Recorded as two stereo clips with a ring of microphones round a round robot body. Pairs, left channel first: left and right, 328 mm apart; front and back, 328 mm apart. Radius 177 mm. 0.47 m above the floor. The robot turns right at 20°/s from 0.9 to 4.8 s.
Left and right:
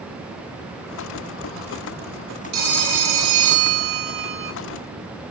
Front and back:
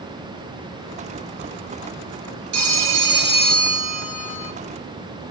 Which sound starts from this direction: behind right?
A phone ringing, at 2.5 s.